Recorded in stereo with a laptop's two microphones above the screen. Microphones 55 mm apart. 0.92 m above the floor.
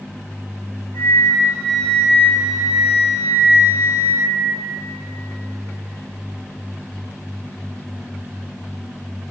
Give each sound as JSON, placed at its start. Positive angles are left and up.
{"t": 0.9, "sound": "a flute", "side_deg": 30, "distance_m": 1.2}